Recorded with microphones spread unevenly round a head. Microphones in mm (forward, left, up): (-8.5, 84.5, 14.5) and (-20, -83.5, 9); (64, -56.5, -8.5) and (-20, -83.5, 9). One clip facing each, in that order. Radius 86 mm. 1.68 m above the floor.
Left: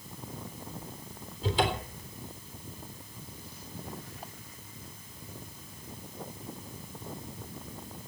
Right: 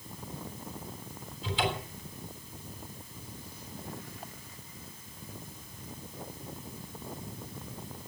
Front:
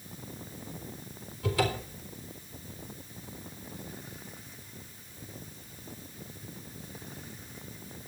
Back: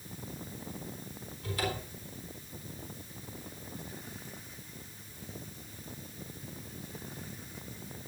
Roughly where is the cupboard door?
Ahead left.